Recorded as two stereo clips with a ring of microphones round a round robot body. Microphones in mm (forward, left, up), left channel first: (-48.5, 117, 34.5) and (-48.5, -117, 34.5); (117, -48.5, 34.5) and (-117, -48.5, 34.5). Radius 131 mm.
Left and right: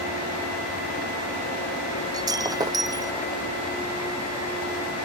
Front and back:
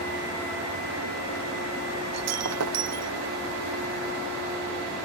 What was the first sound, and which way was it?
Breaking glass, 165° right.